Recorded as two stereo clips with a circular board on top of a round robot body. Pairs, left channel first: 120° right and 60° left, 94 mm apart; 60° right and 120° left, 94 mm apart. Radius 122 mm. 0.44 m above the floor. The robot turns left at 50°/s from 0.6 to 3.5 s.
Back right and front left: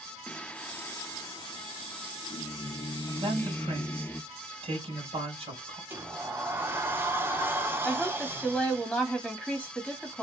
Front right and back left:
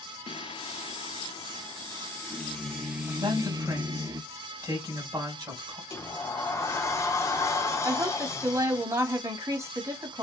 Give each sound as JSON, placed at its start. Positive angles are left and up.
{"t": 0.3, "sound": "singing", "azimuth_deg": -45, "distance_m": 0.6}
{"t": 3.2, "sound": "a man speaking", "azimuth_deg": 75, "distance_m": 2.5}
{"t": 5.9, "sound": "a sliding door", "azimuth_deg": -5, "distance_m": 1.0}
{"t": 7.8, "sound": "a woman speaking", "azimuth_deg": 150, "distance_m": 1.6}